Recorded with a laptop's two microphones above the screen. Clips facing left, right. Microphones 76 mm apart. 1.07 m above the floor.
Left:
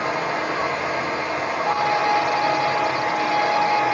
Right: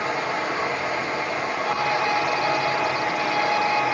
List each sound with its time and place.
0.0 s running water: 75° left (ahead or behind), 1.5 m
1.7 s a violin: 25° left (ahead or behind), 0.5 m